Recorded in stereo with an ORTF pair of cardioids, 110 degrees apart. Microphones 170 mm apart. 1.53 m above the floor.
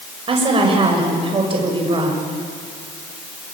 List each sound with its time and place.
0.3 s a woman speaking: 30° right, 6.5 m